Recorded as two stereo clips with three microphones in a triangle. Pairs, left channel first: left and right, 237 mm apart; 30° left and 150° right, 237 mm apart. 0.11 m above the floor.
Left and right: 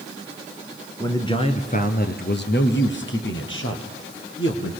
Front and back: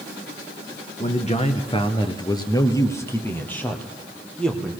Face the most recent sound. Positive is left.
turn(degrees=115)